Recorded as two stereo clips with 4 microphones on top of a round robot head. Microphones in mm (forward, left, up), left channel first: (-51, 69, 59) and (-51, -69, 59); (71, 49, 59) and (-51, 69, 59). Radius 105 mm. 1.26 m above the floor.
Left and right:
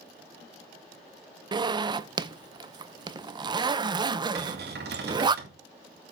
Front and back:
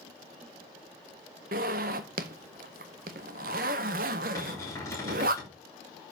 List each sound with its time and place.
1.5 s a zipper: 150° right, 0.5 m
4.3 s a cupboard door: 85° right, 2.5 m